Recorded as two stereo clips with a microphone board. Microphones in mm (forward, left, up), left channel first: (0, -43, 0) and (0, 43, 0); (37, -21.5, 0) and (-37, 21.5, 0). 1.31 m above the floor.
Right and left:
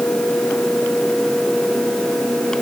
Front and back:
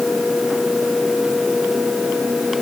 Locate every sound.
Only background noise.